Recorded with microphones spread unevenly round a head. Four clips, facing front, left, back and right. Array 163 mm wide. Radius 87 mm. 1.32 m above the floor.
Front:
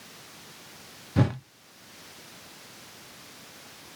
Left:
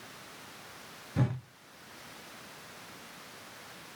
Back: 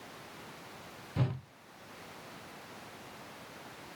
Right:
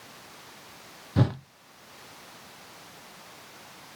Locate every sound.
1.2 s a whoosh: 40° right, 0.6 m